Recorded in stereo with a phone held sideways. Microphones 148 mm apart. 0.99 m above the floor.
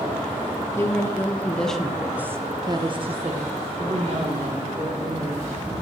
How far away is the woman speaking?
About 1.2 m.